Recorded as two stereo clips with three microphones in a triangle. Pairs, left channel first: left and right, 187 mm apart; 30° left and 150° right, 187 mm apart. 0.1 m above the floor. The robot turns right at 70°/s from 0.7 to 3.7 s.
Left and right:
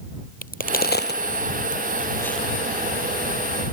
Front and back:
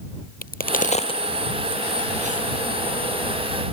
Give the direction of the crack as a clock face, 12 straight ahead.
10 o'clock.